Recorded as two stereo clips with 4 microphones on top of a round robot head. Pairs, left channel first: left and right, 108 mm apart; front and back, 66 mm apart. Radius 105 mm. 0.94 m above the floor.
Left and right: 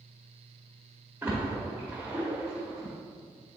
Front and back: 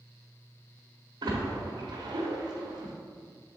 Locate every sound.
1.2 s a splash: 165° right, 1.2 m